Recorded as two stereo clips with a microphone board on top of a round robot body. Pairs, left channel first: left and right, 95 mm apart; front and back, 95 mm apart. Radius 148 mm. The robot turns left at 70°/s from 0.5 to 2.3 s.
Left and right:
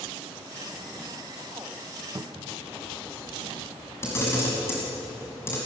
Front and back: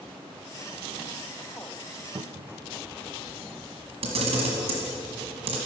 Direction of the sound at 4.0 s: 155° left.